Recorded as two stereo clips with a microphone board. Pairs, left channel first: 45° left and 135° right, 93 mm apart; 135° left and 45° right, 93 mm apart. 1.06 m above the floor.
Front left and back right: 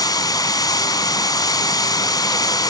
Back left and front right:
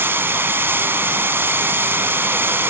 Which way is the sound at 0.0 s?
15° left.